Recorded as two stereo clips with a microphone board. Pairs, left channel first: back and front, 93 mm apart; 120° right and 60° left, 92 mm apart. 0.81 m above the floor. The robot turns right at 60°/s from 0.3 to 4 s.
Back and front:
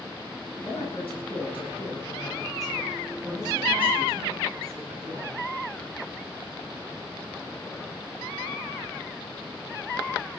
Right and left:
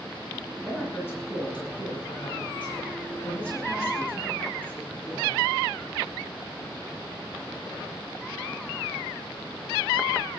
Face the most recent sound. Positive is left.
turn(degrees=-10)